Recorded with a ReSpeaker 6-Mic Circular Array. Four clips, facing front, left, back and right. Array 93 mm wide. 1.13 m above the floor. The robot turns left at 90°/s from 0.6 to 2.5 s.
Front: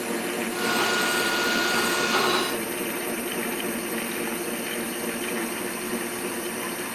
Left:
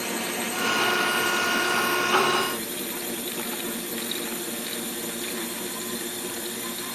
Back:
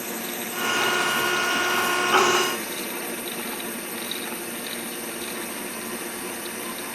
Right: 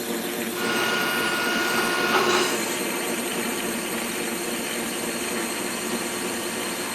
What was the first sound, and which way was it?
A drone, 80° left.